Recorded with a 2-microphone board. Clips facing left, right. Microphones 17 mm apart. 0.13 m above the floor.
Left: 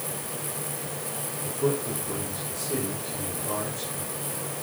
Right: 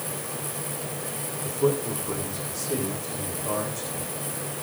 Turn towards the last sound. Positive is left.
turn(degrees=-35)  # may be behind; listen again after turning